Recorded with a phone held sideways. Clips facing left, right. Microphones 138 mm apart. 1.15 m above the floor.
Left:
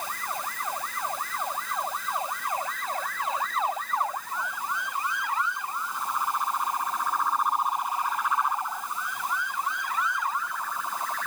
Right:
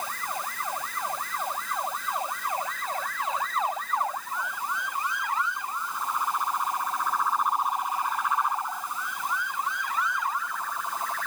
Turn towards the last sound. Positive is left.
No sound to turn to.